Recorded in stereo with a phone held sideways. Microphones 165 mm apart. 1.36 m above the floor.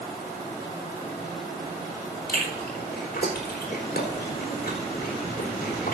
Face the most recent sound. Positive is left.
turn(degrees=75)  # may be behind; listen again after turning